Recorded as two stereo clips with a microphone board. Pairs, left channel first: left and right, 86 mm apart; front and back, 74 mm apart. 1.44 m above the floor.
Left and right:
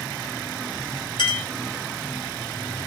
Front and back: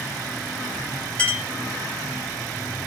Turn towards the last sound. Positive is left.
turn(degrees=70)